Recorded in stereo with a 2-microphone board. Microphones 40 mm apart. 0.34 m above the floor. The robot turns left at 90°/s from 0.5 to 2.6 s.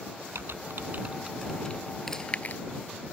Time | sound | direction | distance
0.3 | typing on a keyboard | 75° right (ahead or behind) | ?
2.1 | chewing | 10° left (ahead or behind) | ?